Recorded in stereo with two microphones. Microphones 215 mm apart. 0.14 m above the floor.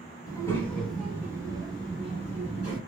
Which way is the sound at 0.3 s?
15° left (ahead or behind).